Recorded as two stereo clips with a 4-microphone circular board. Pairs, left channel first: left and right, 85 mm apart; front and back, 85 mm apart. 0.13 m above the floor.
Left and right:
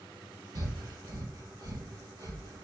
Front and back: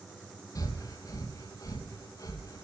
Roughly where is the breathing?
Ahead right.